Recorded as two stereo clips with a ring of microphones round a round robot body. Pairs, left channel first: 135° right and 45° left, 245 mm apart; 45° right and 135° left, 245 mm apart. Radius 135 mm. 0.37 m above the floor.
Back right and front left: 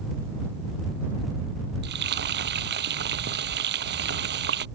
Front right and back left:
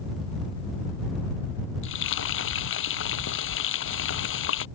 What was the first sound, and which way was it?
Frying, 5° right.